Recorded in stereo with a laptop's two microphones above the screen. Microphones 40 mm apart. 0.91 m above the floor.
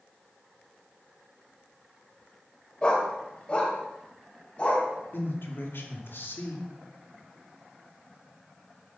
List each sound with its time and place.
2.8 s a dog barking: 25° left (ahead or behind), 1.7 m; by 4.9 s 30° left (ahead or behind), 3.5 m
5.1 s a man speaking: 70° left (ahead or behind), 2.5 m